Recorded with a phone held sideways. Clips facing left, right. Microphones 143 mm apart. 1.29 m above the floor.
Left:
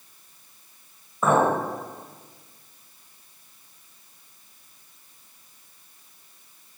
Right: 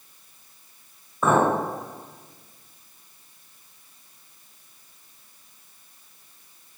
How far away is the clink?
About 1.3 m.